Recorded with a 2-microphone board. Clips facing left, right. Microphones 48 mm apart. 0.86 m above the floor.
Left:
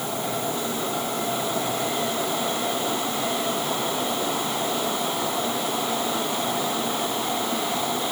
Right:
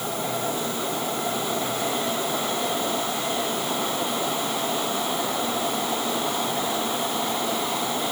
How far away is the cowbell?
No cowbell in this recording.